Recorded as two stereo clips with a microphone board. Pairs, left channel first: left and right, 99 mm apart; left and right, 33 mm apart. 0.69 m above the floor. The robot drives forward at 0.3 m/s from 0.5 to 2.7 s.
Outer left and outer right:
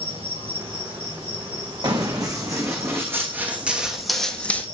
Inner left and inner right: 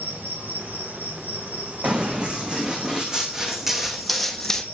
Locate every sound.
0.0 s an insect: 70° right (ahead or behind), 5.5 m
1.8 s running footsteps: 45° right (ahead or behind), 1.9 m; by 4.6 s 15° left (ahead or behind), 1.1 m